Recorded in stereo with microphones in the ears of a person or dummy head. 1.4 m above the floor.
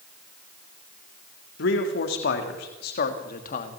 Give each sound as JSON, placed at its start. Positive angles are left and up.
{"t": 1.6, "sound": "a man speaking", "side_deg": 65, "distance_m": 3.0}